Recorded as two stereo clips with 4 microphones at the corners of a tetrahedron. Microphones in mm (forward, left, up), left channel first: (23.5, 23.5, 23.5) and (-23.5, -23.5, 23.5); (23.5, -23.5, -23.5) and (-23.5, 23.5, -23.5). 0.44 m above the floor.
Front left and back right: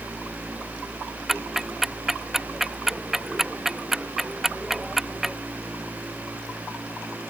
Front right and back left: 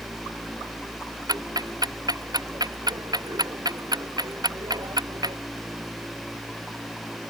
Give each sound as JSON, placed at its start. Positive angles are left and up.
{"t": 1.3, "sound": "ticking", "azimuth_deg": 140}